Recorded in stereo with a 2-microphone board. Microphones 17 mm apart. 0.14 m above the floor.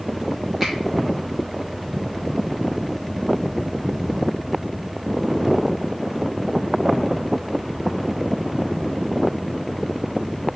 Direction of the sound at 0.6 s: 25° right (ahead or behind).